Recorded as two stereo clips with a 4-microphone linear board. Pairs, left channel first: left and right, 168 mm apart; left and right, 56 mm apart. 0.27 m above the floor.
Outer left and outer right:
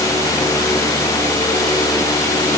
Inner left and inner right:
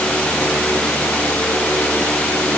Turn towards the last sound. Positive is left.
No sound to turn to.